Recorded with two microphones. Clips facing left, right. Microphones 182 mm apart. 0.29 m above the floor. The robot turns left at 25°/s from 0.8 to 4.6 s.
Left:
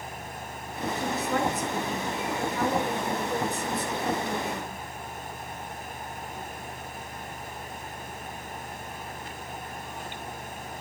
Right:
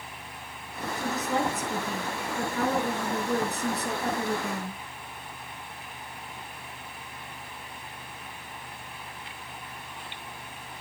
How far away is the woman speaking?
About 4.5 m.